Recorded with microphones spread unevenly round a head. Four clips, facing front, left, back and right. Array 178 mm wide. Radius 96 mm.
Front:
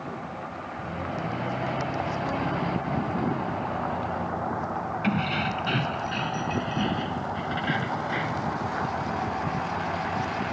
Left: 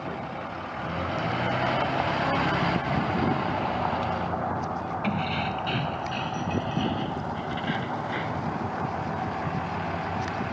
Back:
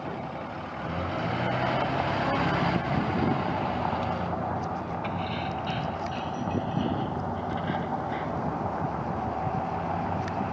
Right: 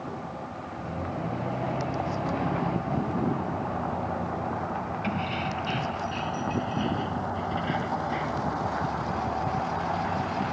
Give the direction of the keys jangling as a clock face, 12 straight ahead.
12 o'clock.